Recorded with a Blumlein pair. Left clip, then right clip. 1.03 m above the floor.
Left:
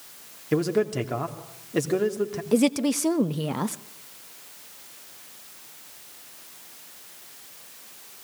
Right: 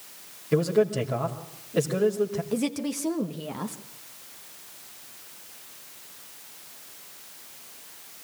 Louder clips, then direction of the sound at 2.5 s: Left 7 dB; 20° left.